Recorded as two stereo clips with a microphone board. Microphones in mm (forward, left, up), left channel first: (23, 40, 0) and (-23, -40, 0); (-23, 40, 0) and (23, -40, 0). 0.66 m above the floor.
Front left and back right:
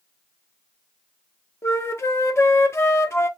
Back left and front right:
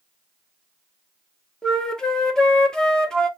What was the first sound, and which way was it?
A flute, 45° left.